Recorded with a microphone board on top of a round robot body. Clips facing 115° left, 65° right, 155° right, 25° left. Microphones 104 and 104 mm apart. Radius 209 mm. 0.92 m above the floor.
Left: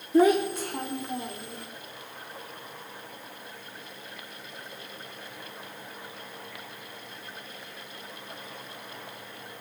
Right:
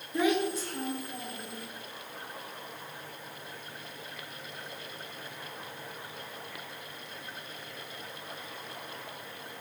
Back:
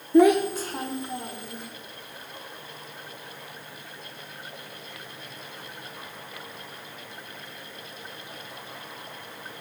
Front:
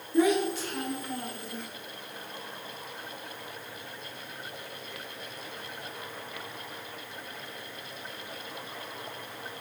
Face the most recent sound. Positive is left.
turn(degrees=125)